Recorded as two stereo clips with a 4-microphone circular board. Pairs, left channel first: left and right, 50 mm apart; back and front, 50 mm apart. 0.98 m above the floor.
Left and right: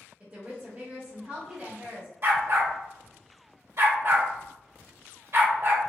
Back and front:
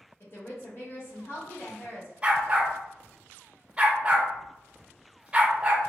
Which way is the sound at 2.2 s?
65° right.